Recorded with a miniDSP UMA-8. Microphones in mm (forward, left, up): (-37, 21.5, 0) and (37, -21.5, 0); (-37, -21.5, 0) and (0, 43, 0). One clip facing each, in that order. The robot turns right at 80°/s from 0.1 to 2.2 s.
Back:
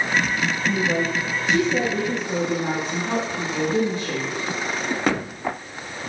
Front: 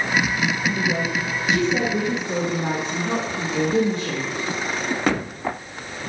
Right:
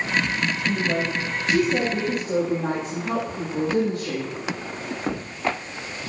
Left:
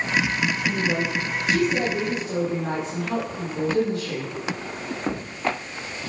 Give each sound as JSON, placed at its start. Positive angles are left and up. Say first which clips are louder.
{"t": 0.7, "sound": "a woman speaking", "louder": "back 1 dB, even", "azimuth_deg": 175, "distance_m": 6.0}